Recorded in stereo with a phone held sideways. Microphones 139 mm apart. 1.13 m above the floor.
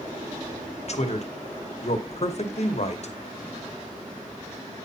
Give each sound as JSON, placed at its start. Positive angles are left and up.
{"t": 0.9, "sound": "a man speaking", "side_deg": 50, "distance_m": 0.8}